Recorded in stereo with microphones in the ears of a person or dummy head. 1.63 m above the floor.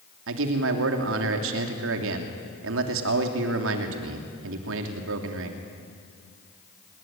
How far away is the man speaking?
About 3 m.